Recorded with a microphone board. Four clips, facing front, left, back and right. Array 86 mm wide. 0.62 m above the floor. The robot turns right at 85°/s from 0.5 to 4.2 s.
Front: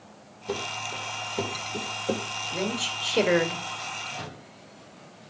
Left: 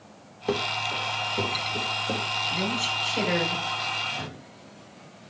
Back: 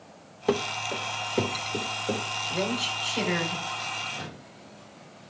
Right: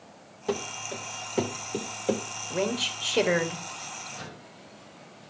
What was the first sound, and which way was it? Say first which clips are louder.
Running footsteps: left 4 dB, back 6 dB; 160° left.